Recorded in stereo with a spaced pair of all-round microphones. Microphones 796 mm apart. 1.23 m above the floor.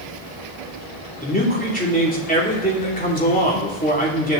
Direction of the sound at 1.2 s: 10° left (ahead or behind).